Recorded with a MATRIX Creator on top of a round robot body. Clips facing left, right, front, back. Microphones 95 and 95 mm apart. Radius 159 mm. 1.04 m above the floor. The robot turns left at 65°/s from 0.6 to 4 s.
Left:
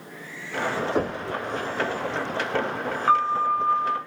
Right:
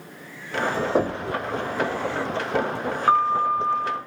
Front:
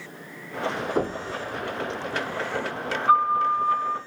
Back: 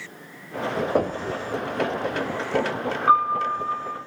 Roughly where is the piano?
Behind.